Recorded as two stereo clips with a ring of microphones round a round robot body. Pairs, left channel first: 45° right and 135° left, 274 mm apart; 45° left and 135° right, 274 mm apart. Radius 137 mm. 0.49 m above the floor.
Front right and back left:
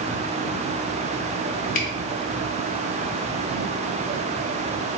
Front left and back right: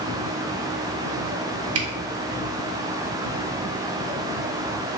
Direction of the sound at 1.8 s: 105° right.